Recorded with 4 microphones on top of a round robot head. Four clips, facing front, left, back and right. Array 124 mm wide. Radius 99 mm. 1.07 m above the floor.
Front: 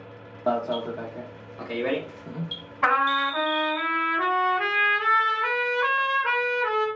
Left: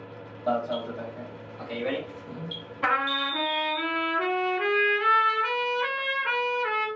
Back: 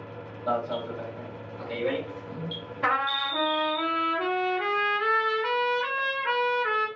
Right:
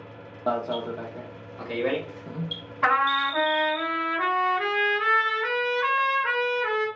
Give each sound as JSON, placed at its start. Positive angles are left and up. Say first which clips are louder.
{"t": 0.5, "sound": "an alarm", "louder": "right 1 dB, front 3 dB", "azimuth_deg": -40, "distance_m": 0.7}
{"t": 2.8, "sound": "a trumpet", "louder": "right 4 dB, front 5 dB", "azimuth_deg": -40, "distance_m": 2.0}